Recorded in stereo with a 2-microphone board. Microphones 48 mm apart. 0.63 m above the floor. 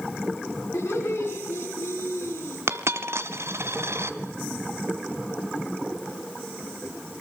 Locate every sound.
0.7 s laughter: 80° left, 5.5 m
2.7 s a dropped coin: 70° right (ahead or behind), 1.5 m